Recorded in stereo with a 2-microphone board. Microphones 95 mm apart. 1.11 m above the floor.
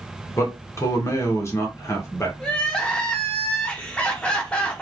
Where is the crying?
10° left (ahead or behind), 0.8 m.